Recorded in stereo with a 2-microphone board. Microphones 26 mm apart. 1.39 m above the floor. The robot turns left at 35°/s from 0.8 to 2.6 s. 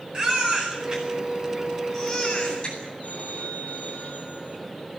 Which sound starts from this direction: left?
A phone ringing, at 3.0 s.